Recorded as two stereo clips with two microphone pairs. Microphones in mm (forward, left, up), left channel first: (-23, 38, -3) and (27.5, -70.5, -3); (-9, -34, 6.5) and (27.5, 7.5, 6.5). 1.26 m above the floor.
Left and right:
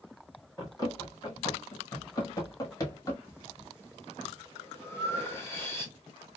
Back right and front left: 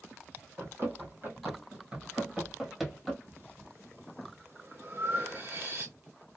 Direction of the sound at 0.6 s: 65° left.